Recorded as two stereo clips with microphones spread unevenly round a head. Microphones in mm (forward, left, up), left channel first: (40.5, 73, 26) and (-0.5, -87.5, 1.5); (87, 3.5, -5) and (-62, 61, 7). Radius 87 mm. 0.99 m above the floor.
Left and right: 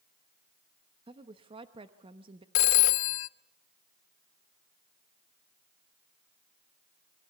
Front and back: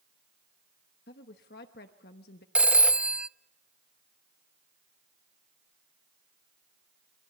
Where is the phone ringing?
75° left, 0.5 m.